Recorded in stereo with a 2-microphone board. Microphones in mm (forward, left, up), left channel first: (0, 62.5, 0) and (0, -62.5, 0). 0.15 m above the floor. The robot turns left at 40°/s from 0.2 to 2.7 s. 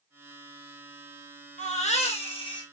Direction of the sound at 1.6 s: 80° left.